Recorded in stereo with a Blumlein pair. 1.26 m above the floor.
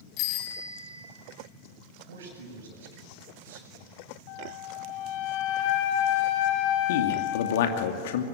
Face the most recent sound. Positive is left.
turn(degrees=55)